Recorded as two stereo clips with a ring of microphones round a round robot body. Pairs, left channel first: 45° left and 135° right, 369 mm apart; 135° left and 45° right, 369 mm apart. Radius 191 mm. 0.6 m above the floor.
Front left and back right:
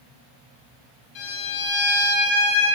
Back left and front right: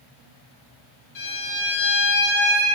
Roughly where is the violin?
Left.